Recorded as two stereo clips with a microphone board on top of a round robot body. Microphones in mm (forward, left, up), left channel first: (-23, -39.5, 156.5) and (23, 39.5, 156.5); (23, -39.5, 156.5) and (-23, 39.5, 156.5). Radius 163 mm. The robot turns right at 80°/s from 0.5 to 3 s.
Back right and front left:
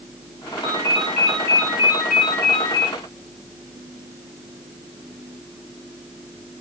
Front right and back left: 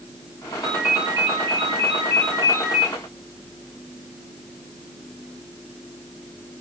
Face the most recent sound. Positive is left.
turn(degrees=-135)